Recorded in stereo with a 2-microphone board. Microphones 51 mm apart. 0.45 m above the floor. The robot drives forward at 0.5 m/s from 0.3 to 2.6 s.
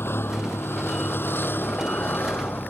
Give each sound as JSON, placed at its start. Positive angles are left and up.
{"t": 0.0, "sound": "a vehicle", "side_deg": 50}